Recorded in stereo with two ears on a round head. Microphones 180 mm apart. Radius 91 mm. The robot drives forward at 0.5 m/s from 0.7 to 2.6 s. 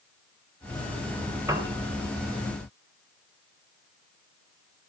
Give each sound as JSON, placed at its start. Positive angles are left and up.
{"t": 1.5, "sound": "a piano", "side_deg": -15, "distance_m": 3.5}